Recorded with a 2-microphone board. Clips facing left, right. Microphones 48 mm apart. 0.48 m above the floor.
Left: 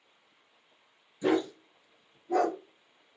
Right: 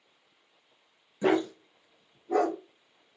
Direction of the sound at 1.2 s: 50° right (ahead or behind).